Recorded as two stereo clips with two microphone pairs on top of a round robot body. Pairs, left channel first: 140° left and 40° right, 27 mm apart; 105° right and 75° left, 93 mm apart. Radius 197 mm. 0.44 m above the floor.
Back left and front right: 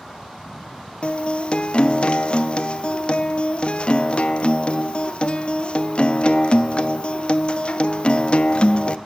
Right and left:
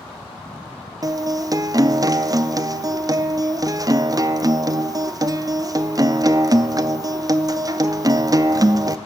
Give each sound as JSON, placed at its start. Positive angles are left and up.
{"t": 1.0, "sound": "a guitar", "azimuth_deg": 120, "distance_m": 0.5}